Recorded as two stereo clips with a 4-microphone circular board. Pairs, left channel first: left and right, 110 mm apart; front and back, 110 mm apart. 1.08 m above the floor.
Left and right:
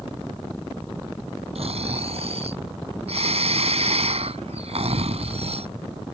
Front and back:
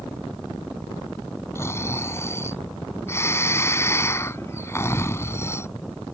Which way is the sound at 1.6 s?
65° right.